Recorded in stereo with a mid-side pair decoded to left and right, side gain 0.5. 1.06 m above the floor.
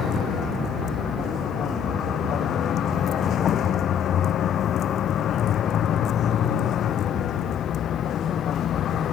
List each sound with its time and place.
0.0 s a vehicle: 55° left